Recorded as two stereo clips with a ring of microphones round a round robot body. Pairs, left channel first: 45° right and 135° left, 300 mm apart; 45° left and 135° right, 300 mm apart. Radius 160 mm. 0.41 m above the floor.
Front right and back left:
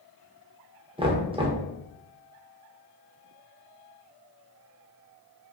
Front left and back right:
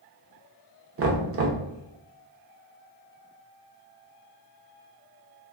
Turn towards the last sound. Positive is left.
turn(degrees=-160)